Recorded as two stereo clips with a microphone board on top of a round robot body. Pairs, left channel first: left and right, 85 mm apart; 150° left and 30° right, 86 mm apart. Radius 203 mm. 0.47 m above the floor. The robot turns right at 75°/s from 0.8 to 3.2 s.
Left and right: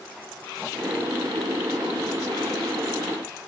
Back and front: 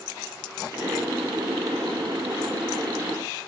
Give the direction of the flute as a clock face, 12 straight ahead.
No flute in this recording.